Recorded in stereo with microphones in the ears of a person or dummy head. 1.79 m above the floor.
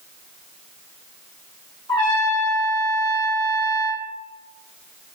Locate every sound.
1.9 s a trumpet: 25° left (ahead or behind), 0.9 m